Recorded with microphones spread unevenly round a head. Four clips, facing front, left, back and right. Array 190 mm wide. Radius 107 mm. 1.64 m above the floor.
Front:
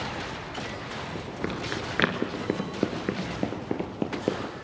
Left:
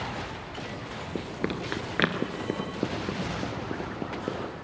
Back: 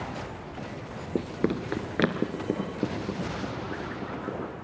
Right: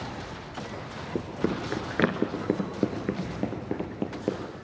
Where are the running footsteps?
165° right, 1.7 m; by 4.4 s 20° right, 3 m.